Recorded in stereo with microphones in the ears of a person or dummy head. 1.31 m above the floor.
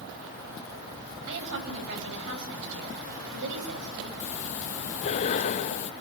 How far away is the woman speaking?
About 8.5 m.